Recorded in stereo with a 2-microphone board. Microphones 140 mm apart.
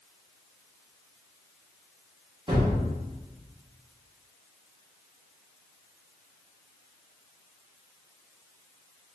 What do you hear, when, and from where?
2.5 s a gunshot: 30° right (ahead or behind), 1.3 m